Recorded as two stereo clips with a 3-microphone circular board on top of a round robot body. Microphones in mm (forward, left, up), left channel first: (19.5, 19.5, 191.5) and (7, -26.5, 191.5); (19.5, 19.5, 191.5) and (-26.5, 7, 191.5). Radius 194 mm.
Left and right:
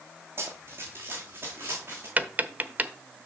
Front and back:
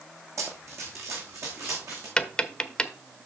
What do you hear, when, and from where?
0.4 s running footsteps: 145° right, 1.7 m; by 2.1 s 155° right, 3 m
2.2 s tapping: 55° right, 0.8 m